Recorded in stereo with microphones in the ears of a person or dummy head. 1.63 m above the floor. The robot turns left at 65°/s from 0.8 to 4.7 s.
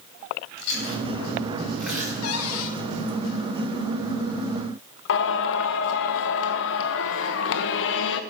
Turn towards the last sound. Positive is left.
turn(degrees=65)  # may be behind; listen again after turning